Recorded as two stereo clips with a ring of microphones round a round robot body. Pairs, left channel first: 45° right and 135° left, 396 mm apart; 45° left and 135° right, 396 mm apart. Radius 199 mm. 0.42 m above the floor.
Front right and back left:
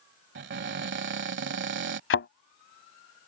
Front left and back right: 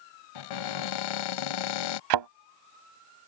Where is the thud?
105° right.